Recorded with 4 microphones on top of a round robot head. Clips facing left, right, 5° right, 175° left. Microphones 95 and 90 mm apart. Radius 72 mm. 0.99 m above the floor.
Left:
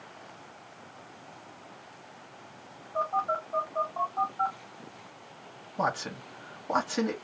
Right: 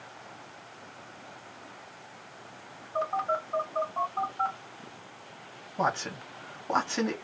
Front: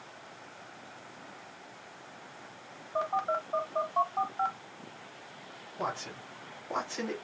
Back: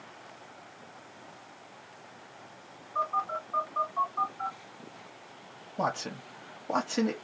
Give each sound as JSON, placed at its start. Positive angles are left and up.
{"t": 3.0, "sound": "a phone buzzing", "azimuth_deg": 5, "distance_m": 1.3}
{"t": 5.8, "sound": "a man speaking", "azimuth_deg": 175, "distance_m": 1.0}